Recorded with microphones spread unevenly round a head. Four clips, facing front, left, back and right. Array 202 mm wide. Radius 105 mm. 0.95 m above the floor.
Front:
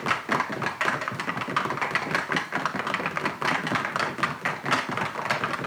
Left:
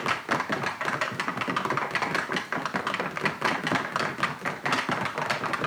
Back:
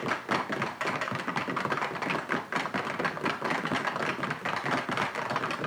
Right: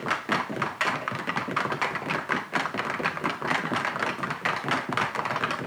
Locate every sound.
Only background noise.